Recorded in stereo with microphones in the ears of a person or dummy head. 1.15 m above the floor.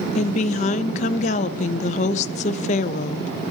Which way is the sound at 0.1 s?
40° left (ahead or behind).